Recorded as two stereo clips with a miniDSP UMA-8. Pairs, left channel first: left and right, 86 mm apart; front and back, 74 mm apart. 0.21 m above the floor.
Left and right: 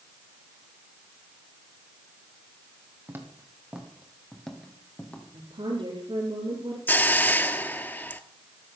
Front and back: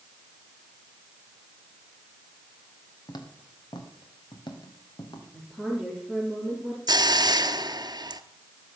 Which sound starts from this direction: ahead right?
Footsteps, at 3.1 s.